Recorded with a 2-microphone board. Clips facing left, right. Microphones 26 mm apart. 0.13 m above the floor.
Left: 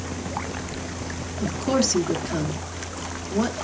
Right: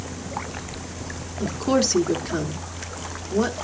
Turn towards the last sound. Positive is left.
turn(degrees=-15)  # may be behind; listen again after turning